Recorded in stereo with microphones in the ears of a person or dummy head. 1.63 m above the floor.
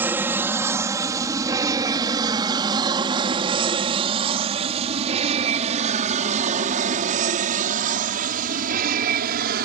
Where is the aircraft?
15° right (ahead or behind); by 9.7 s 55° right (ahead or behind).